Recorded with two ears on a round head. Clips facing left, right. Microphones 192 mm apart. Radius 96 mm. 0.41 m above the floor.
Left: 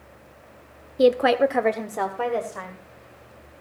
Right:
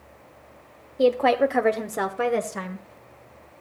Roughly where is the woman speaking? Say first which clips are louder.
Left 2 dB; left.